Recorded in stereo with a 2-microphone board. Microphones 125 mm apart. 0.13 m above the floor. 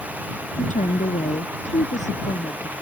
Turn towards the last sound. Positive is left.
turn(degrees=70)  # may be behind; listen again after turning